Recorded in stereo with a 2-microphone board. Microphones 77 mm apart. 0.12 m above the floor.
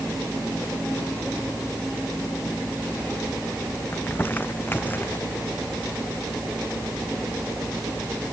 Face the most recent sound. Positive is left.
turn(degrees=25)  # may be behind; listen again after turning